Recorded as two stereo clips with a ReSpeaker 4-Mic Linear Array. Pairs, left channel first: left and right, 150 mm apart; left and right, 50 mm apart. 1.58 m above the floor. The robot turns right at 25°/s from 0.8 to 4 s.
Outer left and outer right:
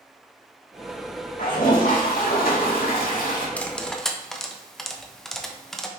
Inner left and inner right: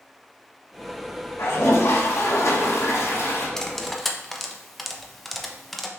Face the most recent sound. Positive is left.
turn(degrees=5)  # may be behind; listen again after turning